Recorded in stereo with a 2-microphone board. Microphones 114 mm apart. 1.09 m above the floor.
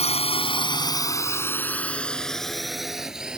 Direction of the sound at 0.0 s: 65° left (ahead or behind).